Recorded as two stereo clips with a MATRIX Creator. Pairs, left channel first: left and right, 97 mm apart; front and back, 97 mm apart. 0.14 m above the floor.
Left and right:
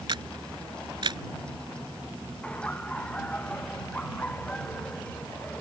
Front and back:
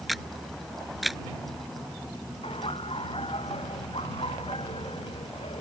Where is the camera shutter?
90° right.